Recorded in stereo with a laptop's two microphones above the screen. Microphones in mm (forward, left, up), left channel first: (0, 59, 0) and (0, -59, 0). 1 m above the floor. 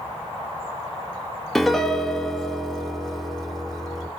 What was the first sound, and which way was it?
A piano, centre (ahead or behind).